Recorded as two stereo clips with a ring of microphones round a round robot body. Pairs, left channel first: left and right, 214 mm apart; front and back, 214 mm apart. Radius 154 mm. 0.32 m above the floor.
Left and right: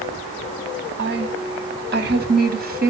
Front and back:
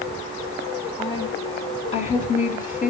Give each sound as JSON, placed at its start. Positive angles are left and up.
{"t": 1.0, "sound": "a woman speaking", "azimuth_deg": -70, "distance_m": 3.0}